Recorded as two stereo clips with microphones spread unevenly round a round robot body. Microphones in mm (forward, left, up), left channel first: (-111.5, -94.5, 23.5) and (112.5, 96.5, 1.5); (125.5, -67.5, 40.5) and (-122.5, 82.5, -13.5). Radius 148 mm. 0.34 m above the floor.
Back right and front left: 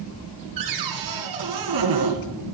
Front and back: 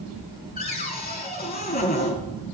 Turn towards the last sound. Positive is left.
turn(degrees=30)